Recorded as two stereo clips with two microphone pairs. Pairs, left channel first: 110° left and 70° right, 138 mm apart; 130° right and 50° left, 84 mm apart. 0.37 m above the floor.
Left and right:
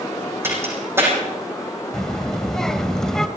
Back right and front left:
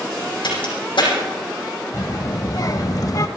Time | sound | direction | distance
0.4 | a crack | 140° right | 7 m
1.9 | a child speaking | 160° right | 0.9 m